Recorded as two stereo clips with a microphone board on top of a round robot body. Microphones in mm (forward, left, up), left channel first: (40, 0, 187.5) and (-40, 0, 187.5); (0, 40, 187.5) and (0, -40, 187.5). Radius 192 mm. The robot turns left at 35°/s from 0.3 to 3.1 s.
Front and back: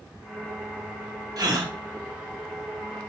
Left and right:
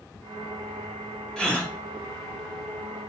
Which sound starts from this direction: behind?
A gasp, at 1.4 s.